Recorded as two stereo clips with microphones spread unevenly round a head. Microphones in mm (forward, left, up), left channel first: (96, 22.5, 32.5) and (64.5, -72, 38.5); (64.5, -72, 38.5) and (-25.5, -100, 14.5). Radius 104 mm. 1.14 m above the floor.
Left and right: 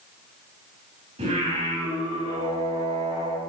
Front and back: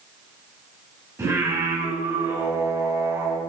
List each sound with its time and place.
1.2 s singing: 100° right, 6.5 m